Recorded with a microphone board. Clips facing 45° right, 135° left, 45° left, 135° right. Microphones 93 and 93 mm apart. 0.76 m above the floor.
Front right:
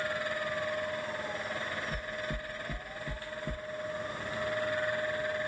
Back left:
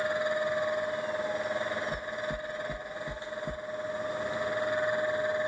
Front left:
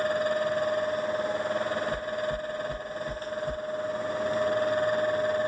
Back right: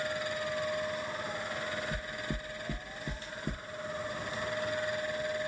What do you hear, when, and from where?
1.9 s knocking: 135° right, 0.8 m